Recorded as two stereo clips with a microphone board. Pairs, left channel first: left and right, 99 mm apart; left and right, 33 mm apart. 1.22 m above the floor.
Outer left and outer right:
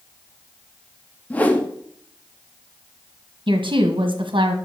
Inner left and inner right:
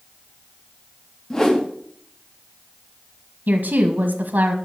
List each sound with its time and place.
1.3 s a whoosh: 15° left (ahead or behind), 1.5 m
3.5 s a woman speaking: 65° right (ahead or behind), 1.4 m